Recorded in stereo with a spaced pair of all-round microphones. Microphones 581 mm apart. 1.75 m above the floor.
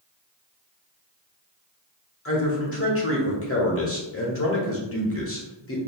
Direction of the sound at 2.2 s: 25° left (ahead or behind).